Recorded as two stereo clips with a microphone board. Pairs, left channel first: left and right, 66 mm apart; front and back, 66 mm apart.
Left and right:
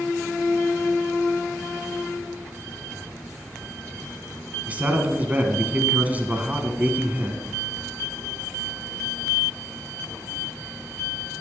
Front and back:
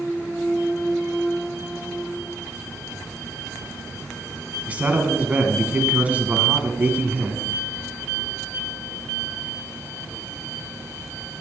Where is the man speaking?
135° right, 1.4 m.